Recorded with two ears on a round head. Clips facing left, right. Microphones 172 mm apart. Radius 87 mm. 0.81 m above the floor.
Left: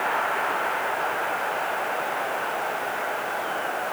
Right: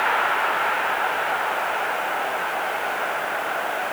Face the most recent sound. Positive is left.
No sound to turn to.